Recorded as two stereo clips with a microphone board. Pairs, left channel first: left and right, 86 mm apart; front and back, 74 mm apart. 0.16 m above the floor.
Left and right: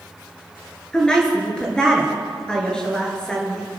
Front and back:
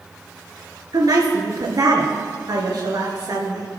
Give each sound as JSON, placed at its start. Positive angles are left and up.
{"t": 0.9, "sound": "a woman speaking", "azimuth_deg": 170, "distance_m": 3.0}